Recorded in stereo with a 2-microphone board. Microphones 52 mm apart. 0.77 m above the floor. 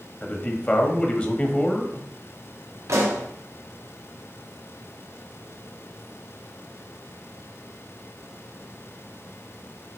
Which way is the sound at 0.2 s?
25° left (ahead or behind).